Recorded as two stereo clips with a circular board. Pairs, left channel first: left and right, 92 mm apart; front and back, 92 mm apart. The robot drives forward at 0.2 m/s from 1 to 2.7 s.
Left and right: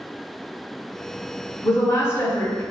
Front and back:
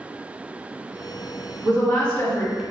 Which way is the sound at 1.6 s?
60° left.